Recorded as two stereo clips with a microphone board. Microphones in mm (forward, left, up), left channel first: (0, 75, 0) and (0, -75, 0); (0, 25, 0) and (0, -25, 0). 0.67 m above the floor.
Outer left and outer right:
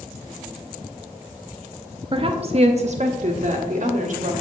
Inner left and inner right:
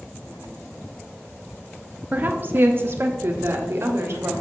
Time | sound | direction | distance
2.1 | a woman speaking | 35° right (ahead or behind) | 0.9 m